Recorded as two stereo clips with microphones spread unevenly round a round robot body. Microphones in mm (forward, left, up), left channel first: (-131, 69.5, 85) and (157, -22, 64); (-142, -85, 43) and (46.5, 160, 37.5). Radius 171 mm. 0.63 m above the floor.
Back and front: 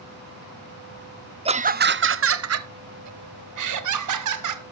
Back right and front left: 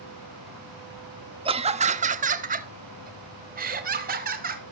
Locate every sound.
1.4 s laughter: 10° left, 0.7 m; by 4.6 s 10° right, 2 m